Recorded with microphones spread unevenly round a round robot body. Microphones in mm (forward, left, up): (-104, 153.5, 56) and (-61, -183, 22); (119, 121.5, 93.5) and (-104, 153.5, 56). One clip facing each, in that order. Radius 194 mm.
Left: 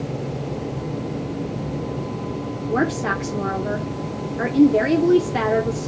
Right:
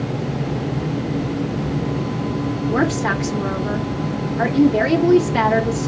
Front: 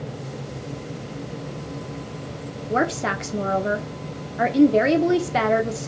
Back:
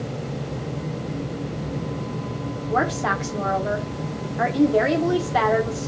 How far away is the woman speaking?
About 1.1 m.